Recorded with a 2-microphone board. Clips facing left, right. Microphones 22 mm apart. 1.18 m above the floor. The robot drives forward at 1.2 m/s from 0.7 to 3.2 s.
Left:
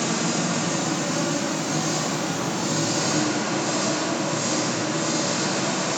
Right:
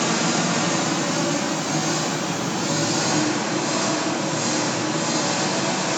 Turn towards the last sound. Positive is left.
turn(degrees=-5)  # may be behind; listen again after turning